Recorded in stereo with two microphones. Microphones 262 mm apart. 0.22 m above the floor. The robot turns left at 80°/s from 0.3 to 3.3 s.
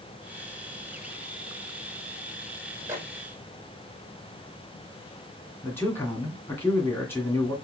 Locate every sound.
2.9 s a microwave: 10° right (ahead or behind), 1.9 m; by 3.0 s 20° right (ahead or behind), 1.9 m
5.6 s a man speaking: 10° left (ahead or behind), 2.0 m